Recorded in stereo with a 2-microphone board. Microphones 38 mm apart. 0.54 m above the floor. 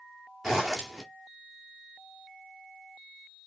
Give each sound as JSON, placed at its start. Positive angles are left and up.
{"t": 0.4, "sound": "a zipper", "side_deg": -10, "distance_m": 1.8}